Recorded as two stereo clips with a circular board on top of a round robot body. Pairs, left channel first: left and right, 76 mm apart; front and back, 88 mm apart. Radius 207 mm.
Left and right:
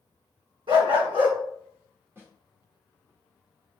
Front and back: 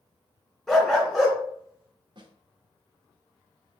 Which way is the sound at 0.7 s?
90° right.